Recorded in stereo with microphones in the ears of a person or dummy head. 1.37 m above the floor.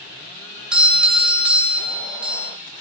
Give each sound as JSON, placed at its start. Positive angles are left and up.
{"t": 0.7, "sound": "a doorbell", "side_deg": -5, "distance_m": 1.0}